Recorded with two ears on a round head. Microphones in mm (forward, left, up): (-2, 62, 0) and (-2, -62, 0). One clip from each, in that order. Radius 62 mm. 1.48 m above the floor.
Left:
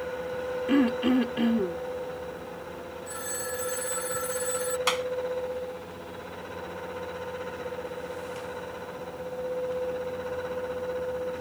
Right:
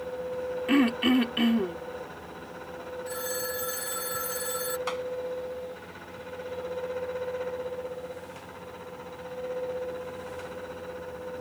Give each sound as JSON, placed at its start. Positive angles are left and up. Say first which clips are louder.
{"t": 0.7, "sound": "throat clearing", "louder": "right 1 dB", "side_deg": -50}
{"t": 3.1, "sound": "a phone ringing", "louder": "right 2 dB", "side_deg": -15}
{"t": 4.9, "sound": "a clap", "louder": "left 5 dB", "side_deg": 55}